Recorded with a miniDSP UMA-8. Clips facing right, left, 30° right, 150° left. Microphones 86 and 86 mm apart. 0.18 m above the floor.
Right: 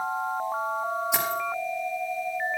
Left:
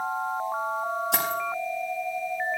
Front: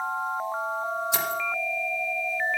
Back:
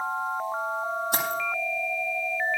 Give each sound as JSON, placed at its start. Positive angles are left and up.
{"t": 1.1, "sound": "keys jangling", "azimuth_deg": 110, "distance_m": 5.0}